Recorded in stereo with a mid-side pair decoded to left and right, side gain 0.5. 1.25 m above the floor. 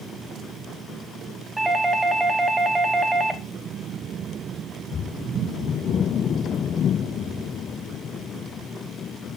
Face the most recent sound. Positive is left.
turn(degrees=-15)